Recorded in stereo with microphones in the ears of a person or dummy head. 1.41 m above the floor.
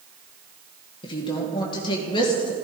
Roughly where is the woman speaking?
Left.